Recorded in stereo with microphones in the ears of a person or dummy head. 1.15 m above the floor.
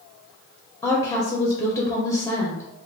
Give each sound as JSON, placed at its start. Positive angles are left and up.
{"t": 0.8, "sound": "a woman speaking", "side_deg": 15, "distance_m": 0.5}